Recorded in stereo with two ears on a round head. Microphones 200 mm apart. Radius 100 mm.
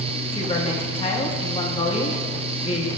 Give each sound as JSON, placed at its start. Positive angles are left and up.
{"t": 0.3, "sound": "a woman speaking", "side_deg": 25, "distance_m": 1.4}